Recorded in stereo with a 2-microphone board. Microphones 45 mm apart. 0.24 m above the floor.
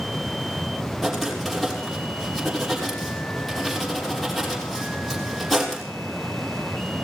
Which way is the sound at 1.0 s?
Centre (ahead or behind).